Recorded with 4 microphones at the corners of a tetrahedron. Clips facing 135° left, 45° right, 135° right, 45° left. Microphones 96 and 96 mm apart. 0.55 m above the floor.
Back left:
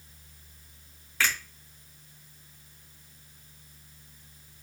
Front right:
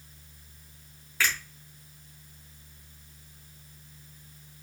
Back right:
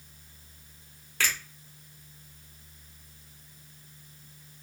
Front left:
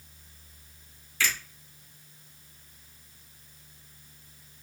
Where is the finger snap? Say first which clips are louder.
Even, front left 1 dB; 135° right, 1.5 m.